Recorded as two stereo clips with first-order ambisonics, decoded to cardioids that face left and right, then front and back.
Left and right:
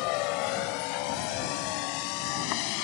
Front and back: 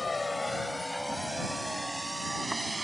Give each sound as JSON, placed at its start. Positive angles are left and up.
{"t": 0.0, "sound": "a vehicle", "azimuth_deg": 75}